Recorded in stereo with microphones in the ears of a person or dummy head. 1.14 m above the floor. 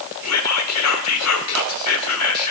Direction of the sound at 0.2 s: 80° left.